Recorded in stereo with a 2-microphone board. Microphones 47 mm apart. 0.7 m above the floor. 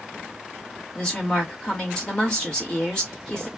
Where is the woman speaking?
20° left (ahead or behind), 1.5 m.